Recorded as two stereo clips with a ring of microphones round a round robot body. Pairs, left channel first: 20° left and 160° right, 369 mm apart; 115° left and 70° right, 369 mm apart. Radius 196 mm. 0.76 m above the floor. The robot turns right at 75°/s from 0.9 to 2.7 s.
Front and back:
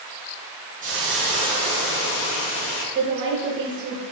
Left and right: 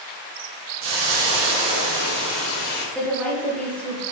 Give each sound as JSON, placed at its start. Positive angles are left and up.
{"t": 0.8, "sound": "a hiss", "azimuth_deg": -85, "distance_m": 0.6}
{"t": 3.0, "sound": "a woman speaking", "azimuth_deg": -165, "distance_m": 0.6}